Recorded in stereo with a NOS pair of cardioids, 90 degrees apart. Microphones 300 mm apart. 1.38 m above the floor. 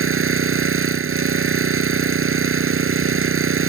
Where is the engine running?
45° right.